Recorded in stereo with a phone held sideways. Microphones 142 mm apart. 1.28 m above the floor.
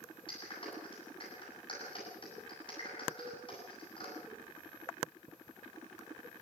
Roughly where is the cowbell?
Left.